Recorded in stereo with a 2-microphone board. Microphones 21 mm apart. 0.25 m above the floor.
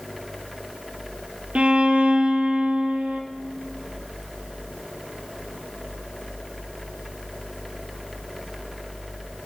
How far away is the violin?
About 1.0 m.